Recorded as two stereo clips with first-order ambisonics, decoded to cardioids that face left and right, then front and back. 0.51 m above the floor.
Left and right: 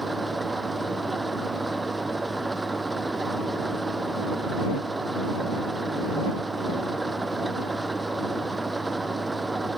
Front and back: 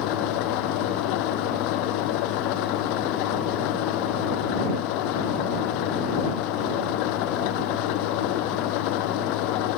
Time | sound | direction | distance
0.0 | an engine running | 10° right | ?